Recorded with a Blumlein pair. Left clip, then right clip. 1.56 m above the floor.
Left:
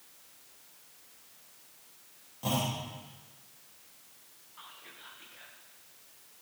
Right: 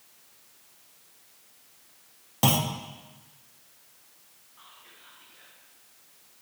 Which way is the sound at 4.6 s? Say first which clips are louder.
Left 3 dB; 15° left.